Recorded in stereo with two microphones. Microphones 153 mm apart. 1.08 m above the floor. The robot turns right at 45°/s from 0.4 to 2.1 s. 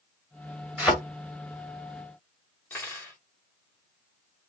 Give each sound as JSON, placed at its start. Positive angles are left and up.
{"t": 0.8, "sound": "a thud", "side_deg": -10, "distance_m": 1.9}
{"t": 2.7, "sound": "cutlery clinking", "side_deg": 15, "distance_m": 1.4}